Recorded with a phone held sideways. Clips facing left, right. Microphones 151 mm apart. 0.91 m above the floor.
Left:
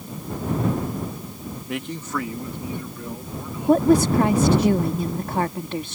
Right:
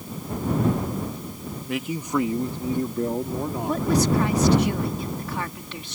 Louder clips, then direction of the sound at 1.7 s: Right 3 dB; centre (ahead or behind).